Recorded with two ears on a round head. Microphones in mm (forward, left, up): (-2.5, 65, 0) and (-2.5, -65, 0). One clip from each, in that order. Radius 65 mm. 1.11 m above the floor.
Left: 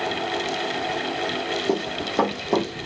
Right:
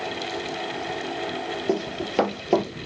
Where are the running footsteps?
55° right (ahead or behind), 1.7 m.